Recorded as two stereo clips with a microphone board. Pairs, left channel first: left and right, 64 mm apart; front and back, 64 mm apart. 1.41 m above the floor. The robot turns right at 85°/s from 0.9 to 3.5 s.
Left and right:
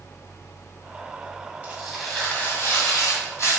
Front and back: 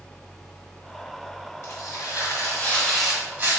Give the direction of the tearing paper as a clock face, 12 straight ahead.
1 o'clock.